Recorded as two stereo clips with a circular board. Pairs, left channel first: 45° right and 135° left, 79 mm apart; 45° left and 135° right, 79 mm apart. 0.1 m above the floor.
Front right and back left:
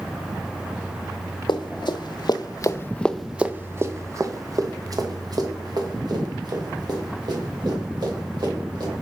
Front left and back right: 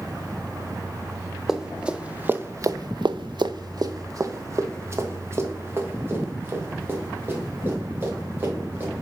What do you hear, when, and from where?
1.5 s running footsteps: 50° right, 1.1 m; by 9.0 s 160° left, 4.5 m